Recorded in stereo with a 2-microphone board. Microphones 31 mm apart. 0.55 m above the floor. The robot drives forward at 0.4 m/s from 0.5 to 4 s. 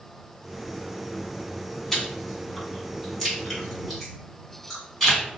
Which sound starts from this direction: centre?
Chewing, at 1.9 s.